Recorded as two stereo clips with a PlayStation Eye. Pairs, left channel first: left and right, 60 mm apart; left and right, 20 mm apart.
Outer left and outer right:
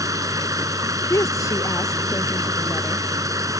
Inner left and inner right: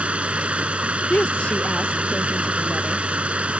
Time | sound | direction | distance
0.0 | running water | 70° right (ahead or behind) | ?
1.1 | a woman speaking | 60° left (ahead or behind) | ?